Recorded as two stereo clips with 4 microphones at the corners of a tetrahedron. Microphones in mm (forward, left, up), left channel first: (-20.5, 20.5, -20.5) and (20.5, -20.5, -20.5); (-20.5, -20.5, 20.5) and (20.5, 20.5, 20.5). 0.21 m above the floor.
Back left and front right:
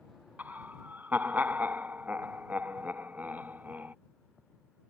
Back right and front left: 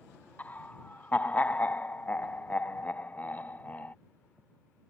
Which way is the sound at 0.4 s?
90° right.